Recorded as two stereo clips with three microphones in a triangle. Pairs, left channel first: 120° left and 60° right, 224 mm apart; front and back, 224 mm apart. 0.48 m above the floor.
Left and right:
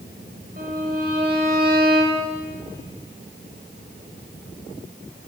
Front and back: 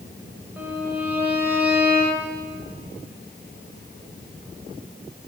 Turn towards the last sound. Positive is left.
turn(degrees=-100)